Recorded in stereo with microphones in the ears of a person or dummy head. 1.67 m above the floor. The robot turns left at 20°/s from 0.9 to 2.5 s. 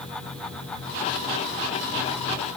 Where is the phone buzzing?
No phone buzzing in this recording.